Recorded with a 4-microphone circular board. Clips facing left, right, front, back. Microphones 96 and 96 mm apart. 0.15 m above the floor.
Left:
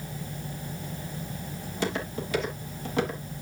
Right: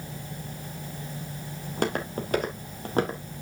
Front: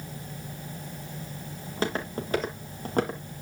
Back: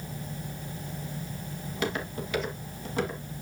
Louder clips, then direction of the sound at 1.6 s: Right 3 dB, front 2 dB; 60° right.